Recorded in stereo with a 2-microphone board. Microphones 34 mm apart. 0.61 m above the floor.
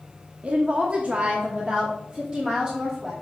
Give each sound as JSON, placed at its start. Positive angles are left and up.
{"t": 0.4, "sound": "a woman speaking", "side_deg": -40, "distance_m": 0.8}